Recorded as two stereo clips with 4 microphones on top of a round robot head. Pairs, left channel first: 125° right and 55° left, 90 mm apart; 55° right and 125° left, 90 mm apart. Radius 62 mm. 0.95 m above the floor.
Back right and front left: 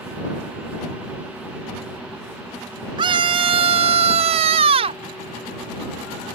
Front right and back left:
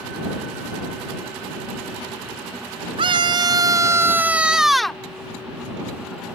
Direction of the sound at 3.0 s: 90° left.